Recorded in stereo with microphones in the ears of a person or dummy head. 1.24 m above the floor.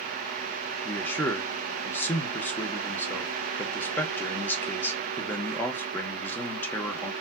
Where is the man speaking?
15° left (ahead or behind), 0.9 m.